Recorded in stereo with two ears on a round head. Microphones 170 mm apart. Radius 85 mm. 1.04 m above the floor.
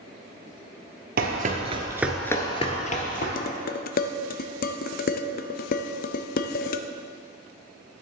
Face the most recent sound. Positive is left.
turn(degrees=50)  # may be behind; listen again after turning